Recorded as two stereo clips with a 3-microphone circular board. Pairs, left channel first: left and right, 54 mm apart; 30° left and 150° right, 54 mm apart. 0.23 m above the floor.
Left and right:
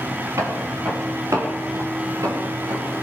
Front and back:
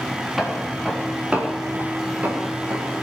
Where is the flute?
I don't hear a flute.